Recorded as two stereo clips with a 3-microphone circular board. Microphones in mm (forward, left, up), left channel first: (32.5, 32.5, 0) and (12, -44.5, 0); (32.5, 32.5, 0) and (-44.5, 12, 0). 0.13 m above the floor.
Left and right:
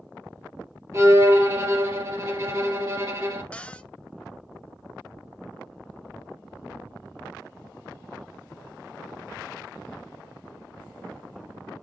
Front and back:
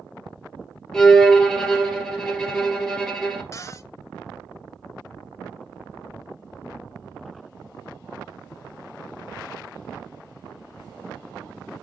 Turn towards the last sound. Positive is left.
turn(degrees=10)